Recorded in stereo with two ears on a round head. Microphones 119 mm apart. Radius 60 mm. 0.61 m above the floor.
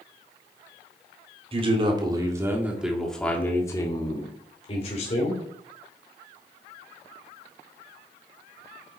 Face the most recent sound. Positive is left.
turn(degrees=55)  # may be behind; listen again after turning